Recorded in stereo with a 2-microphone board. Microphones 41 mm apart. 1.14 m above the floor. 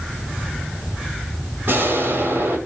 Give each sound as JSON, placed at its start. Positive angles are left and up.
{"t": 1.7, "sound": "an explosion", "side_deg": -60, "distance_m": 6.5}